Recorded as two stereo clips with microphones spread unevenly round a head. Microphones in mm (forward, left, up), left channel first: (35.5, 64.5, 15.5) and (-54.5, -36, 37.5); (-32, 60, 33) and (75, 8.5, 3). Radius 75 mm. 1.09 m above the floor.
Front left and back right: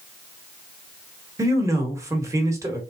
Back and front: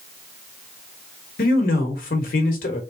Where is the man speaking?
160° left, 1.1 m.